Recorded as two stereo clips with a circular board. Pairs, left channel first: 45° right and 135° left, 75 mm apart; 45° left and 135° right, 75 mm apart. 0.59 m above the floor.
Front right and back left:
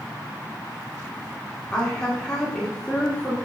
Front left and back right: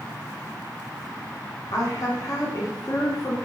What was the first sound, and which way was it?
A woman speaking, 30° left.